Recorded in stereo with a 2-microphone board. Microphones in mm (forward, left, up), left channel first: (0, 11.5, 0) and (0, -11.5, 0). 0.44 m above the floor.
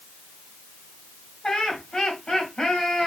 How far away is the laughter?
About 2.5 m.